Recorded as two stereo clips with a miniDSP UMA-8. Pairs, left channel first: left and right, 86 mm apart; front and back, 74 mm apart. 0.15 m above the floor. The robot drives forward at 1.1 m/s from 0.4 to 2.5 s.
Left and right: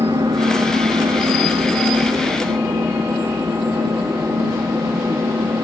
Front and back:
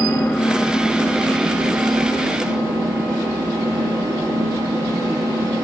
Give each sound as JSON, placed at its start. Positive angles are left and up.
{"t": 0.0, "sound": "an engine running", "azimuth_deg": -65, "distance_m": 1.7}